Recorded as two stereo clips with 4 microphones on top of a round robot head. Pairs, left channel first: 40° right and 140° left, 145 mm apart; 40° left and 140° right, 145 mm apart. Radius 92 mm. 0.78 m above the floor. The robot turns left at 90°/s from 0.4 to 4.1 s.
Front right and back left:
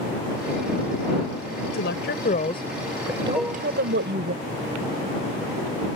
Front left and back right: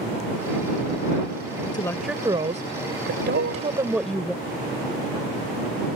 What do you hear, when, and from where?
1.7 s a woman speaking: 20° right; by 4.3 s 125° left
3.3 s dishes clattering: 130° right; by 3.7 s 160° right